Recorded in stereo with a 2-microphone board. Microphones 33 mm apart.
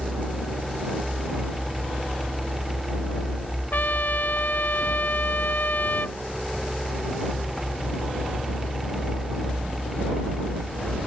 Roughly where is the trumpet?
Left.